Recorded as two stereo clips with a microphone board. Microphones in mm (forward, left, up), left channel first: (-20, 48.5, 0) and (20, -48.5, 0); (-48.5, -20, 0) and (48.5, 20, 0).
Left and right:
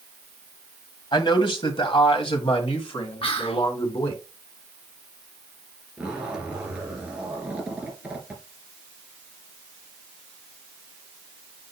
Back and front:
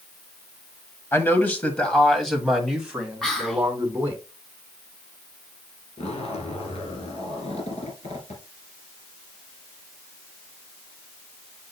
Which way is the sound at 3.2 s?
120° left.